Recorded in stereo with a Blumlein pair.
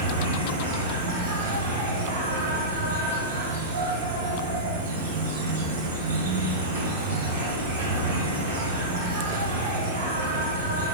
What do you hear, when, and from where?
0.0 s an insect: 60° right, 1.4 m